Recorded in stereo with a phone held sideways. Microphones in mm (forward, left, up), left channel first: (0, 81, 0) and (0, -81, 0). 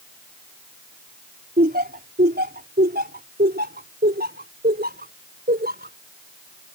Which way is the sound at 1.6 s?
70° right (ahead or behind).